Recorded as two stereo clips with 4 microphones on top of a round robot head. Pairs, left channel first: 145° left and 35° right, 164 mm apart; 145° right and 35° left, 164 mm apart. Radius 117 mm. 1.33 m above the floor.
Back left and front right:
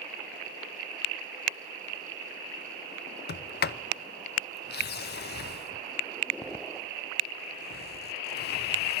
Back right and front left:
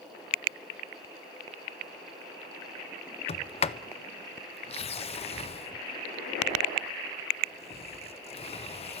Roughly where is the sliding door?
Behind.